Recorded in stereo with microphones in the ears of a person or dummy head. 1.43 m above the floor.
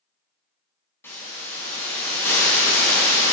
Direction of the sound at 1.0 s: 15° left (ahead or behind).